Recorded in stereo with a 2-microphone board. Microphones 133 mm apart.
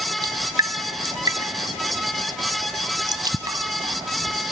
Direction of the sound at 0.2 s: 30° right (ahead or behind).